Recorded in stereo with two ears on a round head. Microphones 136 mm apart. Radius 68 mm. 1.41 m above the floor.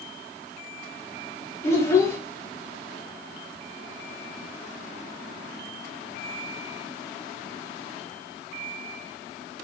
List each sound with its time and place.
1.6 s a child speaking: 20° left (ahead or behind), 0.5 m